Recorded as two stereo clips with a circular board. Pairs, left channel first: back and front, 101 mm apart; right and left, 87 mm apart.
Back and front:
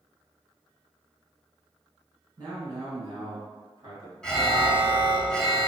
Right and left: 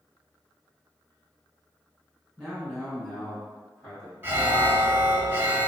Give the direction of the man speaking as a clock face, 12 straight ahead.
1 o'clock.